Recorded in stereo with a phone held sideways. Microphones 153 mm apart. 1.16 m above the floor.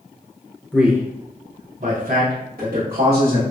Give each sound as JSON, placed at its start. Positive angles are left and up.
{"t": 0.7, "sound": "a man speaking", "side_deg": 0, "distance_m": 0.6}